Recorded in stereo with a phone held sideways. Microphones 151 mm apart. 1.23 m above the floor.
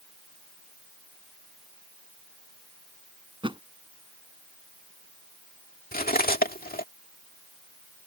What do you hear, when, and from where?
3.4 s a thud: 35° right (ahead or behind)
5.9 s cutlery clinking: 75° left (ahead or behind)